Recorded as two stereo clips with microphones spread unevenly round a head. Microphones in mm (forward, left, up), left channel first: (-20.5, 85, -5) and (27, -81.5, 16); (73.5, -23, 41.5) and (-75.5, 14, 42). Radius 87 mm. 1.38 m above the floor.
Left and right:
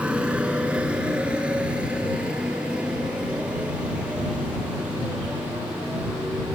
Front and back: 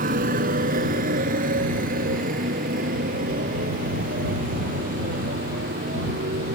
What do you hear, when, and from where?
0.0 s a motorcycle: 155° right; by 6.6 s 160° right